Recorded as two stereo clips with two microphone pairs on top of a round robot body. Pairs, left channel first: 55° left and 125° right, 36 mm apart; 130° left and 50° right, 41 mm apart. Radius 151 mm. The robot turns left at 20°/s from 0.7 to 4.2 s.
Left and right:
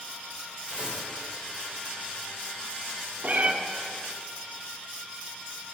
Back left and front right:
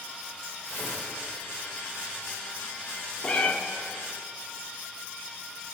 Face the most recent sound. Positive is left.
turn(degrees=175)